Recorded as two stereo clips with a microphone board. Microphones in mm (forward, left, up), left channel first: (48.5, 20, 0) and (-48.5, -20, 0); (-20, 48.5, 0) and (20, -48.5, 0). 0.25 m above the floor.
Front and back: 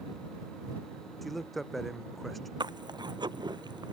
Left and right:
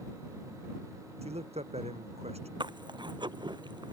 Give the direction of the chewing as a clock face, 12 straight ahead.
4 o'clock.